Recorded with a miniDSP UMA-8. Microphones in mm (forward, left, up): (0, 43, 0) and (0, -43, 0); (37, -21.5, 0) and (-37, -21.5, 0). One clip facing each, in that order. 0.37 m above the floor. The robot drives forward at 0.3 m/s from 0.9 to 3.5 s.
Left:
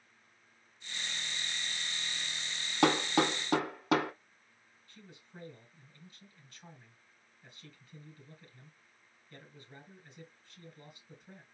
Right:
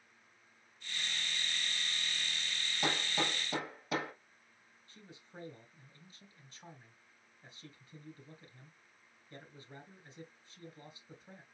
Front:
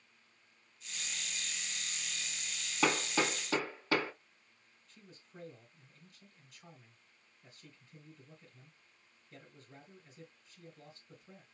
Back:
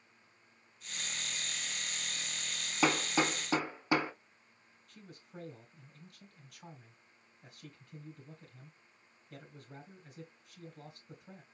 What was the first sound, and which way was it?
Hammering, 95° left.